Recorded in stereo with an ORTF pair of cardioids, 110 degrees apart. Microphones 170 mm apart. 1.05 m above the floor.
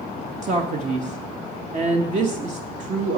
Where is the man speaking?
45° right, 1.0 m.